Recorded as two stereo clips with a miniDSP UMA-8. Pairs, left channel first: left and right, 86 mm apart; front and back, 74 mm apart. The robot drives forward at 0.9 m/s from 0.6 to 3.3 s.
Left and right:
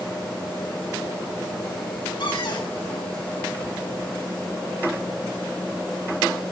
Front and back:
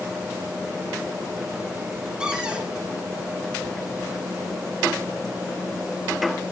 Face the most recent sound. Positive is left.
turn(degrees=120)